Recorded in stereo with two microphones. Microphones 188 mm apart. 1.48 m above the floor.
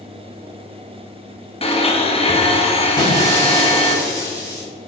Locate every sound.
1.6 s a blender: 30° left (ahead or behind), 1.4 m
3.0 s breaking glass: 20° left (ahead or behind), 3.5 m